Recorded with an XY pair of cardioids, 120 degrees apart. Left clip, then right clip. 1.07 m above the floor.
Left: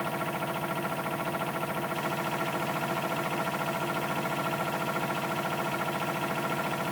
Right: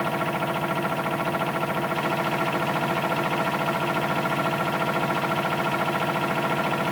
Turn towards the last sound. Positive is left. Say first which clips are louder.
# right 6 dB
turn(degrees=-35)